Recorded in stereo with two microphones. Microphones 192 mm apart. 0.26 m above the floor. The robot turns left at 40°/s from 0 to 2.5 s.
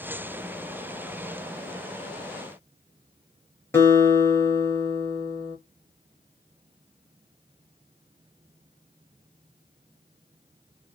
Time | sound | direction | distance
3.7 | a guitar | 15° left (ahead or behind) | 1.8 m